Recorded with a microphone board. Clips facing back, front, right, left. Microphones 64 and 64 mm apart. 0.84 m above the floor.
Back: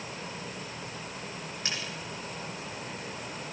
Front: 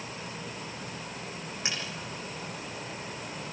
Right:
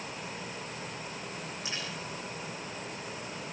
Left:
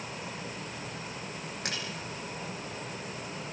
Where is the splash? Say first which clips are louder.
Front 1 dB, left 4 dB; 70° left, 6.5 m.